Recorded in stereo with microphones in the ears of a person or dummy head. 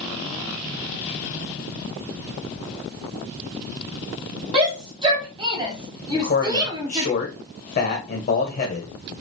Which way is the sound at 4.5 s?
20° right (ahead or behind).